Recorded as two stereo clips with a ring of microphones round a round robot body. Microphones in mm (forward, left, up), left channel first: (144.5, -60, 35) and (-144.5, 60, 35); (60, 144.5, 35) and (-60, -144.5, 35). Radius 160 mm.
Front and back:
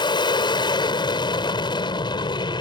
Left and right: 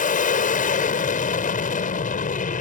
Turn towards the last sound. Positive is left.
turn(degrees=35)